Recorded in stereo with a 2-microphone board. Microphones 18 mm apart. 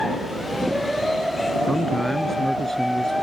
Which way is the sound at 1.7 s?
15° left (ahead or behind).